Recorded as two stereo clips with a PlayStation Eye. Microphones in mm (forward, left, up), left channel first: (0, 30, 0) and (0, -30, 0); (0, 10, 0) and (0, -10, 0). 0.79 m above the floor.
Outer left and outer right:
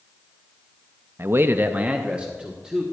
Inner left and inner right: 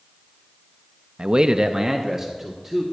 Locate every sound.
1.2 s a man speaking: 40° right (ahead or behind), 0.6 m; by 2.8 s 10° right (ahead or behind), 1.8 m